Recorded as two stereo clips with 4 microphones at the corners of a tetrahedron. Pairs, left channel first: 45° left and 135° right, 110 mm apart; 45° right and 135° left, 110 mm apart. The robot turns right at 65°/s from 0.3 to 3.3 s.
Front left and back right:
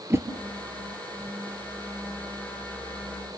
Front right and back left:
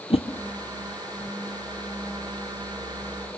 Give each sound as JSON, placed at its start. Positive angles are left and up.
{"t": 0.1, "sound": "a whoosh", "azimuth_deg": -70, "distance_m": 1.5}